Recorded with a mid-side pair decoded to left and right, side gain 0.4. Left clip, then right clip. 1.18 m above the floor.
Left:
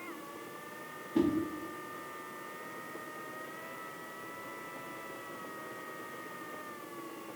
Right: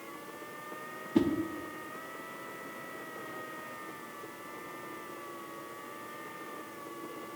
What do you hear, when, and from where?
1.1 s a whoosh: 45° right, 0.8 m